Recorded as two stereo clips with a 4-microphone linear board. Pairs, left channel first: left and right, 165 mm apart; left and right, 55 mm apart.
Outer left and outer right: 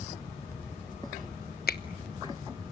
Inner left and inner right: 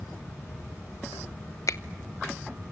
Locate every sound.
1.7 s a finger snap: 70° left (ahead or behind), 0.9 m